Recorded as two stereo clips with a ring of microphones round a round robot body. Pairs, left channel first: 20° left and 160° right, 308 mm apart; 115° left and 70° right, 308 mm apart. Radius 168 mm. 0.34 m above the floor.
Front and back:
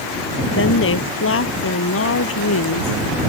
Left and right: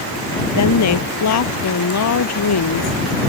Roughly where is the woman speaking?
Left.